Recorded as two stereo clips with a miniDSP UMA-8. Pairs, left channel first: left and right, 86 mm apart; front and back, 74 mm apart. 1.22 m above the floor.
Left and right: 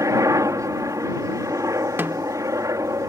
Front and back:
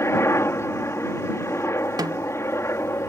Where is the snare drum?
155° right.